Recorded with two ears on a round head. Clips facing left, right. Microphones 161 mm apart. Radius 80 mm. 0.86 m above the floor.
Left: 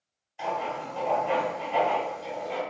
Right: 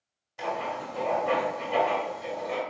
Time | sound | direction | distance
0.4 | writing | 80° right | 1.7 m